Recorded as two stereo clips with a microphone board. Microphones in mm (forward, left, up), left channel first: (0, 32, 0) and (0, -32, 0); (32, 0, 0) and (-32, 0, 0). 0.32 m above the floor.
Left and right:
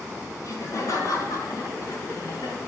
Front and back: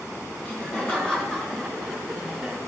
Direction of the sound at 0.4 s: 65° left.